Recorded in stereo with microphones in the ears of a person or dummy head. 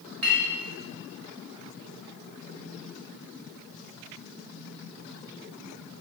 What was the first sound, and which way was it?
A clink, 65° right (ahead or behind).